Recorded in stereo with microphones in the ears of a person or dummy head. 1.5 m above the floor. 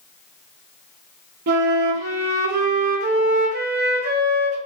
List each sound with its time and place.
1.5 s a flute: 50° right (ahead or behind), 0.6 m